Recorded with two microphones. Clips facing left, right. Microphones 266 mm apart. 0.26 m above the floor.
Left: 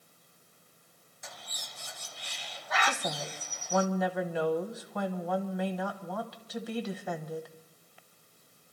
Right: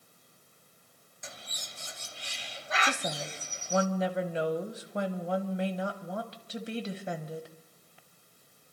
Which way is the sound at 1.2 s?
25° right (ahead or behind).